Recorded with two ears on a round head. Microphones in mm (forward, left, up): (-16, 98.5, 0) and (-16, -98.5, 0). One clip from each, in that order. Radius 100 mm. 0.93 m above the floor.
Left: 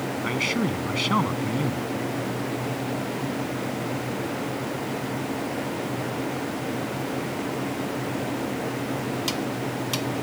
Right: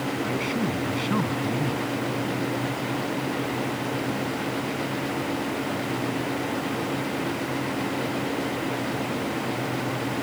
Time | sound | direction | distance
0.2 | a man speaking | 50° left (ahead or behind) | ?